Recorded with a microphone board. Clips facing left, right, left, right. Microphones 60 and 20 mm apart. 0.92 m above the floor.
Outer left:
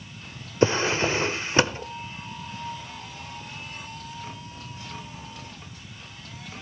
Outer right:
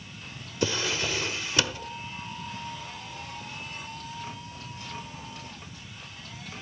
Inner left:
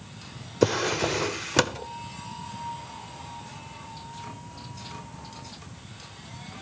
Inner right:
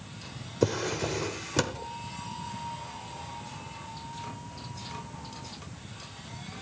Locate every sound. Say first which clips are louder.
0.6 s a drawer: outer left 7 dB, inner left 5 dB; 30° left (ahead or behind), 0.9 m